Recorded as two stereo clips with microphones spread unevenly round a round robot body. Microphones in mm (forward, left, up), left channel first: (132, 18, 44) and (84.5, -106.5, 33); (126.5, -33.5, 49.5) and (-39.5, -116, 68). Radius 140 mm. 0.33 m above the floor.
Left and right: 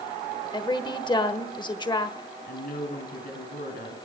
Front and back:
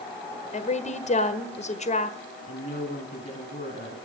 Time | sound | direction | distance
0.5 | a woman speaking | 25° left | 1.4 m
2.5 | a woman speaking | 80° left | 4 m